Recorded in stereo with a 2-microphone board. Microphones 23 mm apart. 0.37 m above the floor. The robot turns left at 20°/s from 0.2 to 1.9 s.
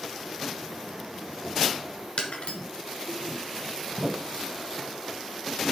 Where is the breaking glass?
80° left, 2.0 m.